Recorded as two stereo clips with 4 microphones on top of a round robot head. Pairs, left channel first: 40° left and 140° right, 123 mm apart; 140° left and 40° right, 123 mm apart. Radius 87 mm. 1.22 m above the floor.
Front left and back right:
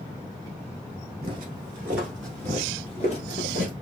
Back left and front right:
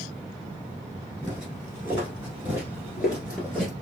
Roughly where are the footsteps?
Right.